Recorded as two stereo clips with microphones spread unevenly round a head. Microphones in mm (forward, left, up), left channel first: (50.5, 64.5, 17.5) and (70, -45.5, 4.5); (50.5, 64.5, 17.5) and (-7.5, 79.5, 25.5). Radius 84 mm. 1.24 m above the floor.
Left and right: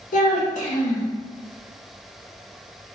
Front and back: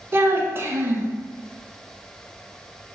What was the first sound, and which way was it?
A child speaking, 115° left.